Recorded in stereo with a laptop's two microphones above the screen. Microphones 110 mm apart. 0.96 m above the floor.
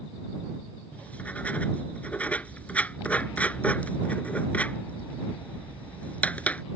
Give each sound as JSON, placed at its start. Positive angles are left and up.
{"t": 0.9, "sound": "writing", "side_deg": 15}